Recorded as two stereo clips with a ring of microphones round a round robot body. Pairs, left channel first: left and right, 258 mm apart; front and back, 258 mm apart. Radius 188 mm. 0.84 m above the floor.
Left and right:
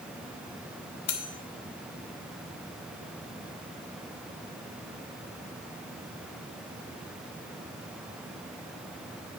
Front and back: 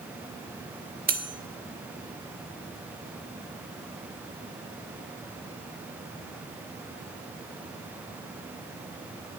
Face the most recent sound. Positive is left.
turn(degrees=120)